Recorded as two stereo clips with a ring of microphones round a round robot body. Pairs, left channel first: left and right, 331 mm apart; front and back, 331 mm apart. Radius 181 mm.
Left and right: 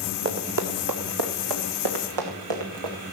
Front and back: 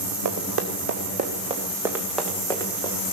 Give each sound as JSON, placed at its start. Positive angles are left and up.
{"t": 0.2, "sound": "running footsteps", "azimuth_deg": -140, "distance_m": 2.5}